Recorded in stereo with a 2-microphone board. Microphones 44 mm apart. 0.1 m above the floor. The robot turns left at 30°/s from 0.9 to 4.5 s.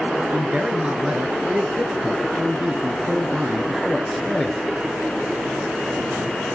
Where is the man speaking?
25° right (ahead or behind), 1.2 m; by 4.6 s 5° left (ahead or behind), 1.2 m.